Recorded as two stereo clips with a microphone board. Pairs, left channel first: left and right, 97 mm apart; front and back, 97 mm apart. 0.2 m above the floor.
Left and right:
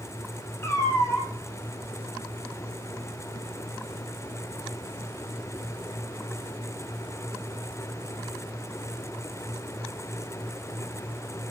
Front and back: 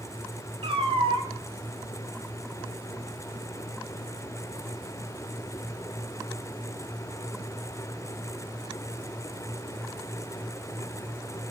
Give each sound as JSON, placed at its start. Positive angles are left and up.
{"t": 0.6, "sound": "a cat meowing", "azimuth_deg": 150, "distance_m": 0.8}